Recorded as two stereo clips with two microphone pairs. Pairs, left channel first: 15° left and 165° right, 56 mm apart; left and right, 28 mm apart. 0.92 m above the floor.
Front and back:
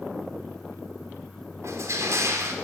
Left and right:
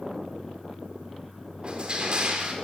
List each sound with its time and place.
1.6 s crushing: 140° right, 3 m